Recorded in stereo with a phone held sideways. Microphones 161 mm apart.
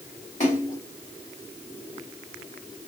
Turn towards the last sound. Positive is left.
turn(degrees=50)  # may be behind; listen again after turning